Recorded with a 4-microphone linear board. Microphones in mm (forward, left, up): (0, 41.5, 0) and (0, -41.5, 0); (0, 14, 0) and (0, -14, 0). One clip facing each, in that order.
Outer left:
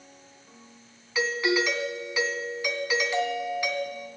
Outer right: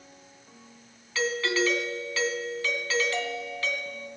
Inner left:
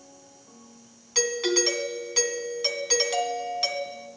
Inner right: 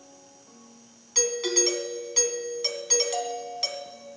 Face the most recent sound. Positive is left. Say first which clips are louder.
# outer left 1 dB, inner left 2 dB
turn(degrees=15)  # may be behind; listen again after turning